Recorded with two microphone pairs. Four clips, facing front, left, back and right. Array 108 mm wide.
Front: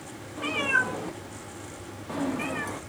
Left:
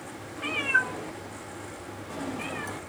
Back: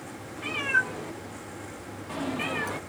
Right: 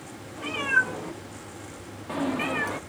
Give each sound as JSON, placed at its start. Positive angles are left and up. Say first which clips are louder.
{"t": 0.4, "sound": "a cat meowing", "louder": "right 2 dB, front 1 dB", "azimuth_deg": -15, "distance_m": 1.3}